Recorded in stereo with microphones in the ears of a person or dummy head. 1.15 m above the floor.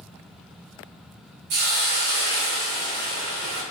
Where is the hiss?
50° right (ahead or behind), 0.9 m.